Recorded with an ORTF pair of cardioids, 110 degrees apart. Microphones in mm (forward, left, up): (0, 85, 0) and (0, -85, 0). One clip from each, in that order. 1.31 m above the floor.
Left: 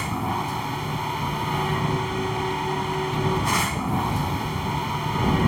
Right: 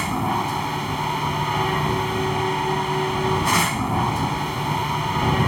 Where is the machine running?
25° right.